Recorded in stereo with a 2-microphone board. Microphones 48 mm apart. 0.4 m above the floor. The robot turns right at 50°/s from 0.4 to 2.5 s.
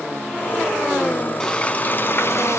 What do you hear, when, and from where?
1.4 s frying: 15° left, 0.6 m; by 2.6 s 70° left, 0.6 m